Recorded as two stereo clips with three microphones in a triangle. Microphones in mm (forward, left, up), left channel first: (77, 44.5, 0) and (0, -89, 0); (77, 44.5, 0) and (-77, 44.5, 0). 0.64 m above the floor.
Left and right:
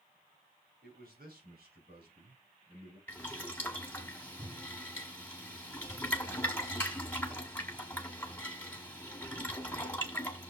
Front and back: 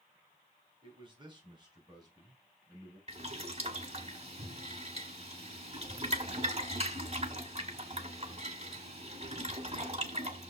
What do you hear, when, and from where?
0.8 s a man speaking: 125° right, 3 m; by 3.0 s 115° right, 4.5 m
3.1 s boiling: 140° left, 1.7 m